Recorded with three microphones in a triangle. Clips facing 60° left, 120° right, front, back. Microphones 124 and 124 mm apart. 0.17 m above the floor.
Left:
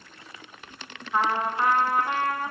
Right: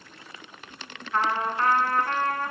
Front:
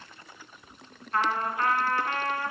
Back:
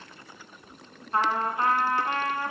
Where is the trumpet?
135° left, 1.6 m.